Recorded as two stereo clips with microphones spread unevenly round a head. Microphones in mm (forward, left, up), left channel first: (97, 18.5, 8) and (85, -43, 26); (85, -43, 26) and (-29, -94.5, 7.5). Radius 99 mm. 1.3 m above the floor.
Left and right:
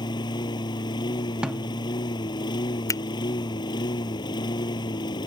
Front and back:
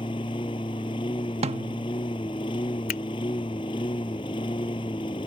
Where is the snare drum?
150° right.